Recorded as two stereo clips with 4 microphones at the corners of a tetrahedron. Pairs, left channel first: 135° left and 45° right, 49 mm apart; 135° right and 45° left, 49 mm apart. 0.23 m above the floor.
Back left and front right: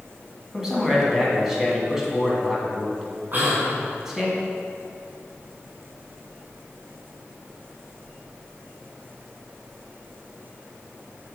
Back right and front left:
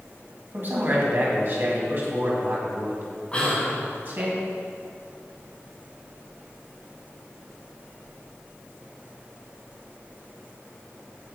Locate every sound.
0.5 s a man speaking: 35° left, 1.9 m
3.3 s whispering: 75° right, 2 m